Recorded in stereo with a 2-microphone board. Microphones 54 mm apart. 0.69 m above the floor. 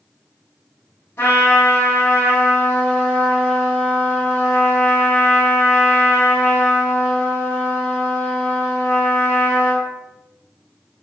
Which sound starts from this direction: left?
A trumpet, at 1.2 s.